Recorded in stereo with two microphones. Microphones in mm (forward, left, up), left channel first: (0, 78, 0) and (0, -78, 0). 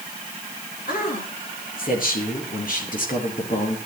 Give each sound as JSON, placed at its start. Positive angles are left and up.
{"t": 0.9, "sound": "a man speaking", "side_deg": 65, "distance_m": 8.5}